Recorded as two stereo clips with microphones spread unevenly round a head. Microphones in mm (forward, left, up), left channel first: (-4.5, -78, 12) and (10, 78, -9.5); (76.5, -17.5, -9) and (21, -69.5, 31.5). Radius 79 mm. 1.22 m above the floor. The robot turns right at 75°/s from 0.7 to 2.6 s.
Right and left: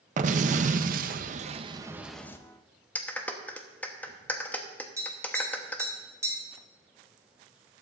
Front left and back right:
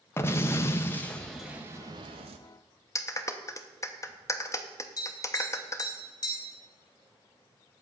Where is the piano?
I don't hear a piano.